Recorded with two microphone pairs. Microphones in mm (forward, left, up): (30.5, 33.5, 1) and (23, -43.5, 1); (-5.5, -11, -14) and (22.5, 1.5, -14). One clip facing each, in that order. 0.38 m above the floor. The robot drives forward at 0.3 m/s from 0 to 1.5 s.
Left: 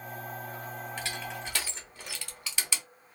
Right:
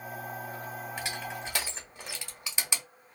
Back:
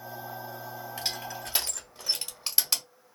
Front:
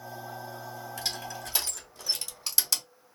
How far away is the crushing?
About 1.1 m.